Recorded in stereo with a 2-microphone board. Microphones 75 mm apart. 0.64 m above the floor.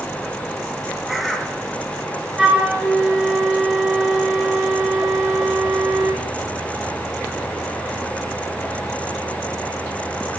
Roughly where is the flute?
Centre.